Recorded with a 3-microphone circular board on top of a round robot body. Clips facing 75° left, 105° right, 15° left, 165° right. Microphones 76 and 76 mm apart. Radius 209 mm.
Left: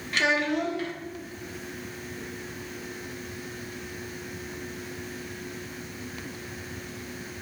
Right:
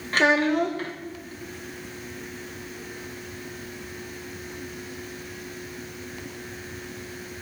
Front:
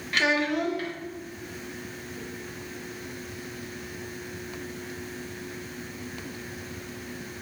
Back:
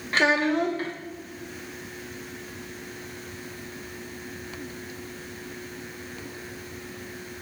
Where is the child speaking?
125° right, 1.0 m.